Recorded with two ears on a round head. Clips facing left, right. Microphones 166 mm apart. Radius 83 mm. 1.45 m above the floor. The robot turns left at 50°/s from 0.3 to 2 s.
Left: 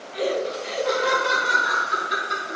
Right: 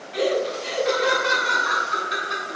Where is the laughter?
115° right, 0.7 m; by 2.6 s 160° left, 0.7 m.